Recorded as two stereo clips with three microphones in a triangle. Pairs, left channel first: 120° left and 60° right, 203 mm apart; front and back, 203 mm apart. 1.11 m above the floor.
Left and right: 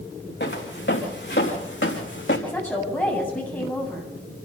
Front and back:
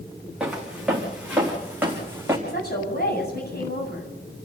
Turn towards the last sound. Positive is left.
turn(degrees=40)